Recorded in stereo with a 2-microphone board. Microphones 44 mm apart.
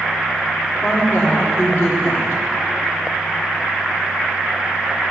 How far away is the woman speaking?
About 1.6 m.